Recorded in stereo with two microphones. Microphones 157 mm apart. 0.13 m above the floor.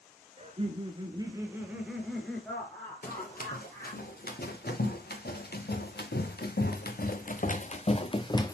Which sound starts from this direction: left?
Running footsteps, at 3.0 s.